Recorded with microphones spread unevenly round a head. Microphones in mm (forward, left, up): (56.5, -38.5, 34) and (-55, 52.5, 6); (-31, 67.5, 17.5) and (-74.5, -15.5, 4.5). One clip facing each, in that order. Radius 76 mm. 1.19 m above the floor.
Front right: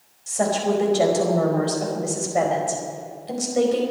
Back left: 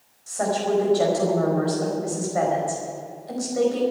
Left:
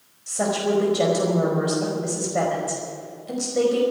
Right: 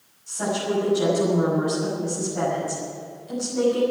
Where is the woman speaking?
25° left, 5 m.